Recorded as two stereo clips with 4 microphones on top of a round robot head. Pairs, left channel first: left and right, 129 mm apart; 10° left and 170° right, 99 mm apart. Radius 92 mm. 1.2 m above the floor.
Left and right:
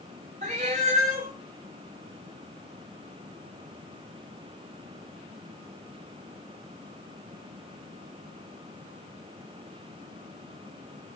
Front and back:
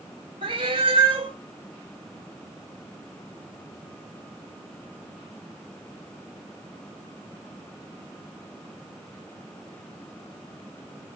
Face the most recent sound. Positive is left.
turn(degrees=-125)